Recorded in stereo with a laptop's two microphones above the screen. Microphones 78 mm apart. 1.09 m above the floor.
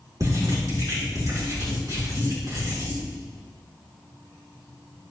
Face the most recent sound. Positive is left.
turn(degrees=-50)  # may be behind; listen again after turning